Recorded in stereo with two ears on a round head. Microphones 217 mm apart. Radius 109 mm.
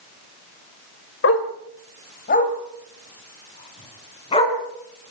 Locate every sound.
1.2 s a dog barking: 50° left (ahead or behind), 2.0 m; by 4.6 s 25° left (ahead or behind), 5 m